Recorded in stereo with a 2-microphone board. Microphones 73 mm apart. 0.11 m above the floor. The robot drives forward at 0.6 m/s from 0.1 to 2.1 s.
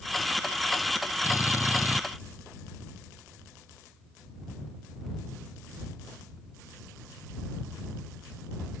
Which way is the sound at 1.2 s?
40° left (ahead or behind).